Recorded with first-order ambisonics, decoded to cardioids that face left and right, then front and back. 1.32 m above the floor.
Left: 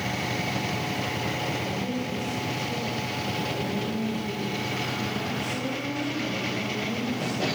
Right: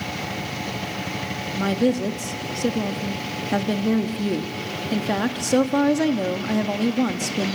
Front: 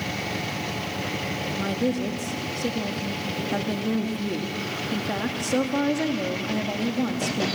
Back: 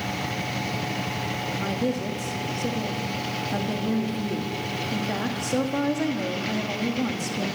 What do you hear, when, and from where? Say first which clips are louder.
1.5 s a woman speaking: right 7 dB, front 2 dB; 85° right, 1.9 m